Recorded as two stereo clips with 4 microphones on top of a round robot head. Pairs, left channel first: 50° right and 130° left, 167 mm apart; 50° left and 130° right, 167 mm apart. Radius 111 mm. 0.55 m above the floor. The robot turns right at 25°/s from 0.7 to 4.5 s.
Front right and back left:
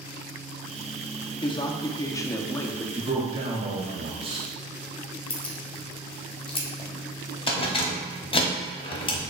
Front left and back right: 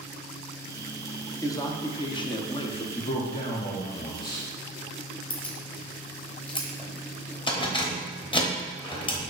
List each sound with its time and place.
1.4 s a man speaking: 10° right, 0.7 m; by 2.9 s 25° left, 0.7 m
3.0 s a man speaking: 65° left, 0.9 m; by 4.5 s 105° left, 0.9 m
5.3 s keys jangling: straight ahead, 0.9 m